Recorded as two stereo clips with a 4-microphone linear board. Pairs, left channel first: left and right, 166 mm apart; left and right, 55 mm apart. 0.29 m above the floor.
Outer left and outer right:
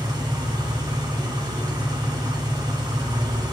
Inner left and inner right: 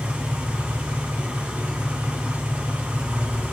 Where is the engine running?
25° right (ahead or behind), 2.0 m.